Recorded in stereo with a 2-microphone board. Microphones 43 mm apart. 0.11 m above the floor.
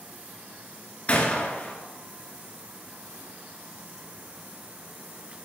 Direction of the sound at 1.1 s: 30° left (ahead or behind).